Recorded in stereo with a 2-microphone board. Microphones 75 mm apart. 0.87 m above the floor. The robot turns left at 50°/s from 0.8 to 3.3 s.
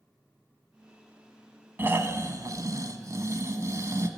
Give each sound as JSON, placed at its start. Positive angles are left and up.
{"t": 1.8, "sound": "snoring", "azimuth_deg": -35, "distance_m": 1.0}